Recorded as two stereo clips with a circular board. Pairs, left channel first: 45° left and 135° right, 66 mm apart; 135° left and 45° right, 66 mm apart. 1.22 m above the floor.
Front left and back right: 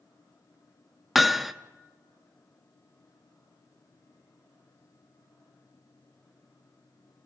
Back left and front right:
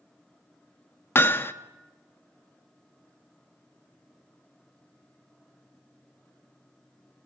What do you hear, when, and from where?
1.1 s hammering: 140° left, 0.7 m